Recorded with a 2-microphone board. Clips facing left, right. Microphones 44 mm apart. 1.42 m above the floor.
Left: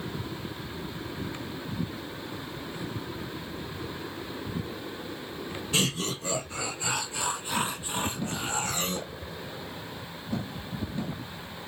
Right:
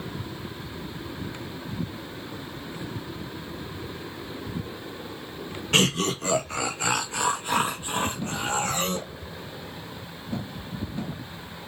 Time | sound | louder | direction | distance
5.7 | laughter | right 6 dB | 60° right (ahead or behind) | 1.3 m